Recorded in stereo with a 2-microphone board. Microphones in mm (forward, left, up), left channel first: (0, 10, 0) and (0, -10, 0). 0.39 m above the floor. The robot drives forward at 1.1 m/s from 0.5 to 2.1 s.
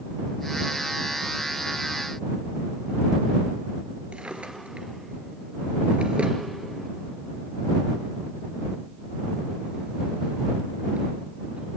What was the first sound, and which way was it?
A drawer, 70° right (ahead or behind).